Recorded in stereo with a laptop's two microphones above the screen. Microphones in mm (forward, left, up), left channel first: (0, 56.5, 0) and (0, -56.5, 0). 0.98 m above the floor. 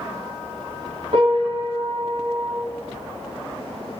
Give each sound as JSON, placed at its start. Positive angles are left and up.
{"t": 1.1, "sound": "a piano", "side_deg": -55, "distance_m": 1.4}